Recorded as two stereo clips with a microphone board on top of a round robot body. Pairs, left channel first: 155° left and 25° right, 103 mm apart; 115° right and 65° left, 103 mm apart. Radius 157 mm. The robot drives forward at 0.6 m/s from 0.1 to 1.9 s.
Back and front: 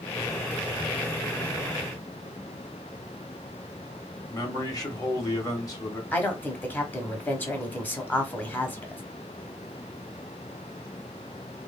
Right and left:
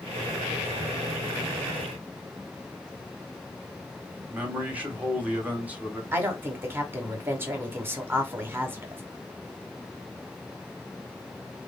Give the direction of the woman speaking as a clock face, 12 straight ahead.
8 o'clock.